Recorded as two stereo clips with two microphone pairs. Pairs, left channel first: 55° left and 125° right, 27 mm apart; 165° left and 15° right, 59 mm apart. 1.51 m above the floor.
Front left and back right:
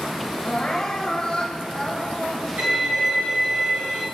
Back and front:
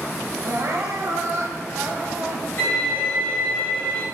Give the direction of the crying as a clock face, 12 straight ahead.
12 o'clock.